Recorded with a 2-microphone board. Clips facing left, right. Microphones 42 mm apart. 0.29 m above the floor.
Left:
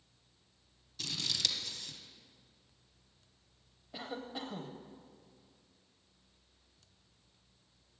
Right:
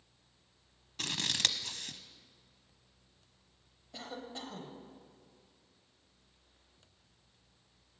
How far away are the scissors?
About 0.9 m.